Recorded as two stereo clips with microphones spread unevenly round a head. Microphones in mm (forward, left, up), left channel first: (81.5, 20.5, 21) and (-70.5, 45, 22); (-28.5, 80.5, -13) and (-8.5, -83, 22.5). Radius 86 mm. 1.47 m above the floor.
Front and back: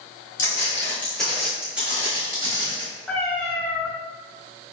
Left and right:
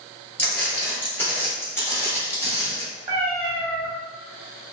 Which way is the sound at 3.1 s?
85° right.